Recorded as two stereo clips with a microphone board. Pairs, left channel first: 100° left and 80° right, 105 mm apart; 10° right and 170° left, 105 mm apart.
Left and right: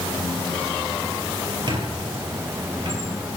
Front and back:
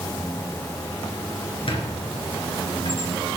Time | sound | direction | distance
1.7 | a squeak | 40° right | 3 m